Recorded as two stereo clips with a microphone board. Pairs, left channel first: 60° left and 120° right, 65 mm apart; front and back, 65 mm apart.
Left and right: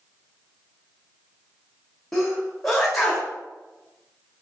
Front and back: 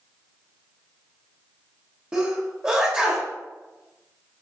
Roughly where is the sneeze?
Behind left.